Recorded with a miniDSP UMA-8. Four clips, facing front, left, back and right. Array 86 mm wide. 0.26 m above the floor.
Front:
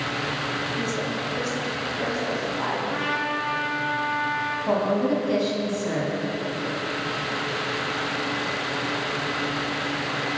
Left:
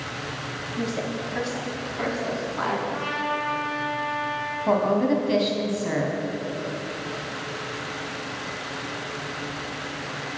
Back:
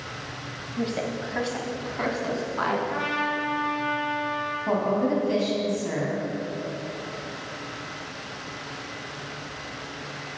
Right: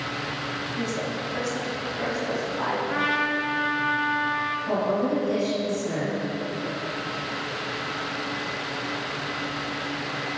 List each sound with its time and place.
0.8 s a woman speaking: 170° left, 1.0 m; by 2.8 s 150° left, 2 m
2.9 s a trumpet: 80° right, 1.4 m
4.7 s a woman speaking: 90° left, 1.6 m